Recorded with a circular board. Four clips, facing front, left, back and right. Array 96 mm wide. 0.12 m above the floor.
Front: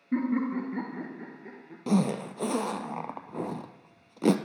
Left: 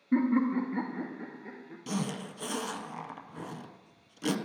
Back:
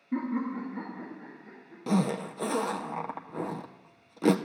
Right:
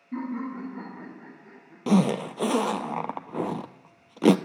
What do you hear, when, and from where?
0.1 s laughter: 65° left, 1.6 m; by 1.8 s 40° left, 2.5 m
1.9 s a zipper: 90° right, 0.5 m